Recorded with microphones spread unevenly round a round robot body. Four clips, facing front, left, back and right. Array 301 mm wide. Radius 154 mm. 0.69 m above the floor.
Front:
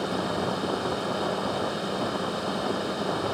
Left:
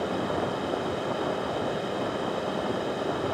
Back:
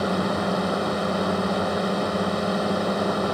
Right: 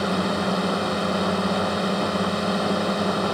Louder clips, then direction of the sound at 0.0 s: Right 4 dB, back 4 dB; 120° right.